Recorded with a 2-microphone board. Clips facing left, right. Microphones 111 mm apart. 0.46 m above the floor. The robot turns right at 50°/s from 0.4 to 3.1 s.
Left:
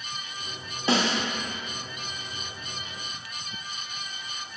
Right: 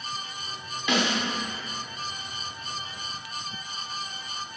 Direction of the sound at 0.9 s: 35° left (ahead or behind).